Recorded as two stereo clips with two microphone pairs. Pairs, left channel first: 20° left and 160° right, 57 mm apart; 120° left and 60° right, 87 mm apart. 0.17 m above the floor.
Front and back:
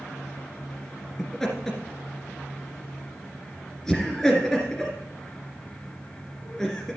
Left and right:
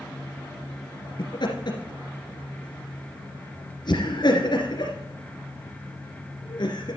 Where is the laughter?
100° left, 2.5 m.